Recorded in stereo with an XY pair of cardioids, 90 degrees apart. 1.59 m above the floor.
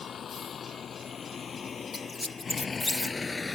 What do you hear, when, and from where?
0.0 s a vehicle: 60° left; by 3.6 s 30° left
1.9 s a squeak: 25° left